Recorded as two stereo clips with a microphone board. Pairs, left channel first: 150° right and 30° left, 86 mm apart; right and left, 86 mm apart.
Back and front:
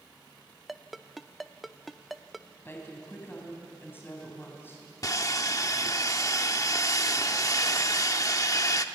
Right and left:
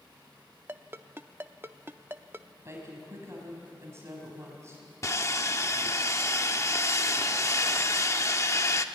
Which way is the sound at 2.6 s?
145° left.